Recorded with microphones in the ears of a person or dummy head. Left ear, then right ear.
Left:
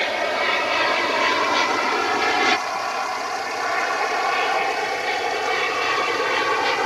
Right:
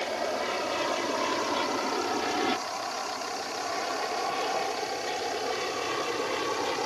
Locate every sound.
0.0 s an aircraft: 55° left (ahead or behind); by 6.9 s 50° left (ahead or behind)